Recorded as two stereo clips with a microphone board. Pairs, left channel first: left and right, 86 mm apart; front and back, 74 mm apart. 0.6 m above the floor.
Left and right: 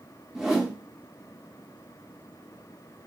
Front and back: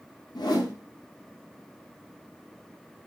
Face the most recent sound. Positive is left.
turn(degrees=-5)